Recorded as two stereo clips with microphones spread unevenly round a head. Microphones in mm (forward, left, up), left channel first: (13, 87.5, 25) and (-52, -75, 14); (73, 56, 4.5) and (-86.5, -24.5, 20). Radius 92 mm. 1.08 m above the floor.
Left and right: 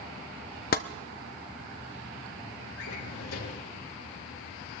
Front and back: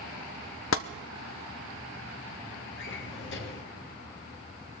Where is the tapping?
30° left, 0.7 m.